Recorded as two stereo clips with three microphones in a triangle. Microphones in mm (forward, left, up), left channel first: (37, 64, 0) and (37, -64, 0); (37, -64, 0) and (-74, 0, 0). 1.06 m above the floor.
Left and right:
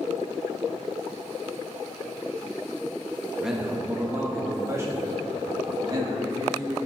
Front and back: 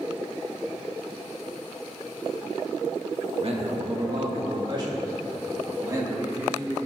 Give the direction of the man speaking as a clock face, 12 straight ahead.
6 o'clock.